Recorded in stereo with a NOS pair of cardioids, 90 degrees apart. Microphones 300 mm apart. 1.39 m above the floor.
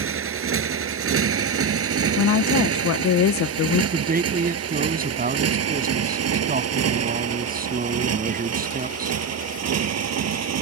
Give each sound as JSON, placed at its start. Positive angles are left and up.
{"t": 0.0, "sound": "a motorcycle", "azimuth_deg": -45}
{"t": 2.2, "sound": "a woman speaking", "azimuth_deg": 65}
{"t": 3.9, "sound": "a man speaking", "azimuth_deg": -30}